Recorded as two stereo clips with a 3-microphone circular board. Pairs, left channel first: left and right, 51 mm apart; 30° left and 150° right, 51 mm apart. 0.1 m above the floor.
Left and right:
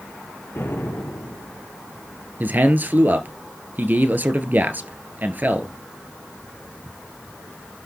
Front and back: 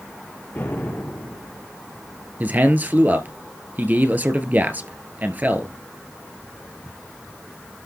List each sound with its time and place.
0.6 s an explosion: 70° left, 2.5 m
2.4 s a man speaking: 115° right, 1.9 m